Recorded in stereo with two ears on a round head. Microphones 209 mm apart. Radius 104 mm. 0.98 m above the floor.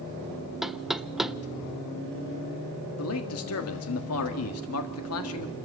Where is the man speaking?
65° left (ahead or behind), 1.7 m.